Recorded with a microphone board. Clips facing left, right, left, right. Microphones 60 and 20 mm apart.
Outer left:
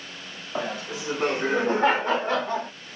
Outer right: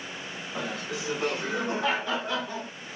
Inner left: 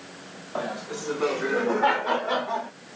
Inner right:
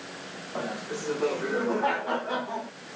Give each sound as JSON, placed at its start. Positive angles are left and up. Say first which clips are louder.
{"t": 0.6, "sound": "laughter", "louder": "outer left 4 dB, inner left 2 dB", "side_deg": 30, "distance_m": 2.5}